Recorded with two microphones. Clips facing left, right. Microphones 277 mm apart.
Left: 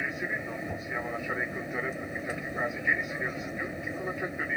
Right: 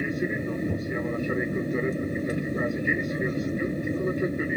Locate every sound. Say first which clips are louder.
0.0 s an aircraft: right 9 dB; 40° right (ahead or behind)